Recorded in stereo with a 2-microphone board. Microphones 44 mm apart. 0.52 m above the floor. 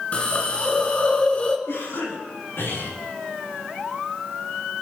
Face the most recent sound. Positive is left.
turn(degrees=75)  # may be behind; listen again after turning